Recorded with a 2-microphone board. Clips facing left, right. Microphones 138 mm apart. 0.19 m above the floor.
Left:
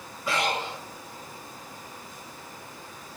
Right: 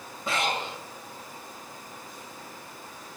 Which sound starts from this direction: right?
Breathing, at 0.3 s.